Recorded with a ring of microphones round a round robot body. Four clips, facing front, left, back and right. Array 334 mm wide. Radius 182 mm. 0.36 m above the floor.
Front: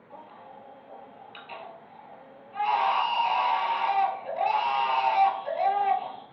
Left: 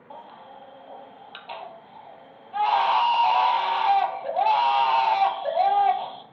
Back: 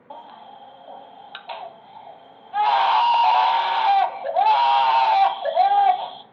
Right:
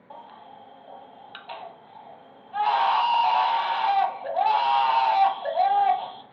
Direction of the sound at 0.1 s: Straight behind.